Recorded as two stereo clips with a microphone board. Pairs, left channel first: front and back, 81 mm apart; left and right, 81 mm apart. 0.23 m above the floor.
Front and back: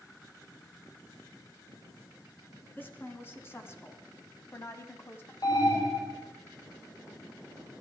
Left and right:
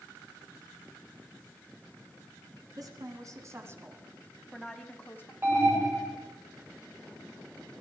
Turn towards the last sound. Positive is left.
turn(degrees=-30)